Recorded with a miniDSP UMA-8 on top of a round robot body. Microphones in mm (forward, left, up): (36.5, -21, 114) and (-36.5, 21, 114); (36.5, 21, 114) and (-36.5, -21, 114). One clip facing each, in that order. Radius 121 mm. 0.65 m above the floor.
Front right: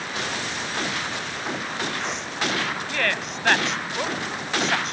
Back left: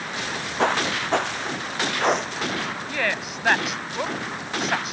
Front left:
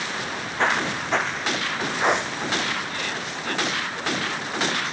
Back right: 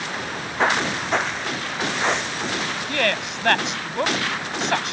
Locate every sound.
0.2 s footsteps: 130° left; by 2.8 s 90° left
2.9 s a woman speaking: 125° right